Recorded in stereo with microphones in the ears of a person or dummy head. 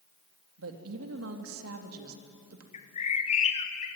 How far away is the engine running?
No engine running in this recording.